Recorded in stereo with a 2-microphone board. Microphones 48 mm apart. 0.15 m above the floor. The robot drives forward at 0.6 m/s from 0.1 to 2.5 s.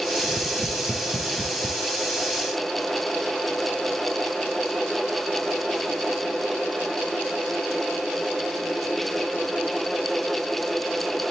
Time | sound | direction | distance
0.2 | tapping | 55° right (ahead or behind) | 4.5 m